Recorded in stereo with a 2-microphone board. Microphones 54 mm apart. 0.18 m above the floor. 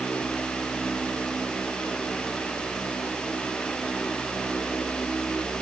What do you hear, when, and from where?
Only background noise.